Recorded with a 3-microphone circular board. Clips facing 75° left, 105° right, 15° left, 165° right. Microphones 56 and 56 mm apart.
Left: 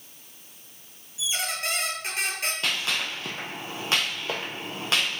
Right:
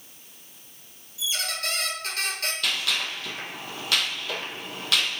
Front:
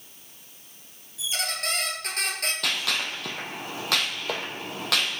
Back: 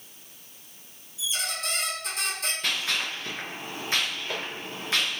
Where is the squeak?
10° left, 0.8 m.